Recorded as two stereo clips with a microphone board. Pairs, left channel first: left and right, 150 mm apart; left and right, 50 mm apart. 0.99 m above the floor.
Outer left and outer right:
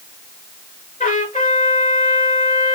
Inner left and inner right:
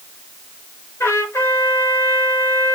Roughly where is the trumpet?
Left.